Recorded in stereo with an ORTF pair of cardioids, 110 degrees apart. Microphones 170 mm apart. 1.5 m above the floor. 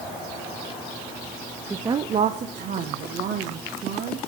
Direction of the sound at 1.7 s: 5° right.